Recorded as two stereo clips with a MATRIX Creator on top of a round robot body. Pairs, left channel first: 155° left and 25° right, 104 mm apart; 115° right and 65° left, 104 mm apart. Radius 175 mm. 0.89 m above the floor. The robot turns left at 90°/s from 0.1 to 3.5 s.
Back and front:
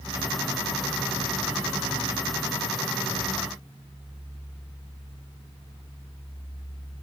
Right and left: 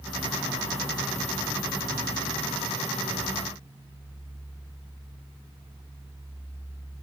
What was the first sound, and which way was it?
Only background noise.